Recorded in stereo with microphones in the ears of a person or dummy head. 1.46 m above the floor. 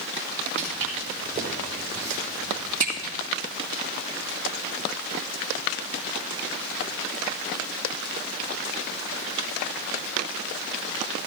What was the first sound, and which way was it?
Footsteps, 30° right (ahead or behind).